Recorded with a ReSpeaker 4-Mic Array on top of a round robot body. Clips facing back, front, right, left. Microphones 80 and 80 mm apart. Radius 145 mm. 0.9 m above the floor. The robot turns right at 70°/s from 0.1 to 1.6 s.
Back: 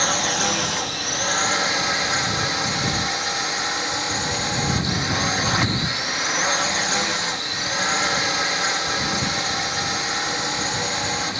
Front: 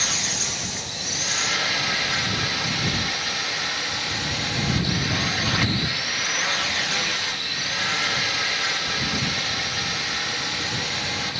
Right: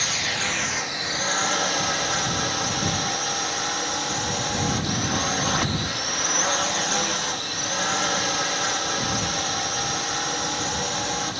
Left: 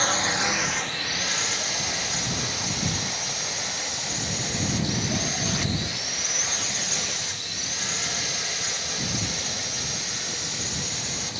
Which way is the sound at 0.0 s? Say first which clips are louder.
Back 8 dB, left 3 dB; 135° left.